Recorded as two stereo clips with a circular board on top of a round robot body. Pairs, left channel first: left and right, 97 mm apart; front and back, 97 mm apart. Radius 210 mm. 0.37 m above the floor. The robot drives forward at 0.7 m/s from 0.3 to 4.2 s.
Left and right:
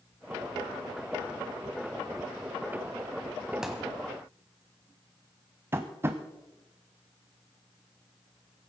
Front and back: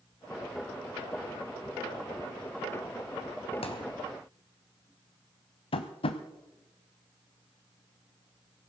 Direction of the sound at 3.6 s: 5° right.